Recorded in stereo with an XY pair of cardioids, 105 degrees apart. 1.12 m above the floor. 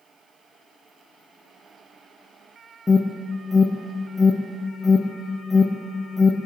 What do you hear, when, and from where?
2.9 s an alarm: 20° left, 0.7 m